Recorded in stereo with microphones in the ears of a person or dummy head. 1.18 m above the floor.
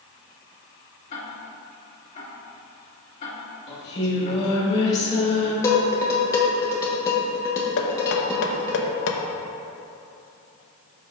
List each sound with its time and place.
1.1 s ticking: 40° left (ahead or behind), 2.5 m
3.7 s singing: 30° left (ahead or behind), 1.7 m
5.6 s dishes clattering: 15° left (ahead or behind), 1.3 m
7.8 s knocking: 60° left (ahead or behind), 1.0 m